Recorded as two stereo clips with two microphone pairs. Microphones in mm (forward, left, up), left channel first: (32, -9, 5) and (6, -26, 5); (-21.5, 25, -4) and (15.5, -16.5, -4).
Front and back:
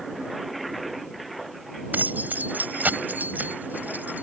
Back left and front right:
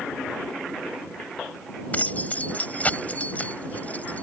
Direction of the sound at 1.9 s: 165° right.